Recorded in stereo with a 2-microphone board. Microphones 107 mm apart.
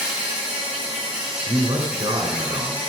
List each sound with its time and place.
0.0 s an insect: 10° right (ahead or behind), 6 m
1.5 s a man speaking: 45° right (ahead or behind), 2 m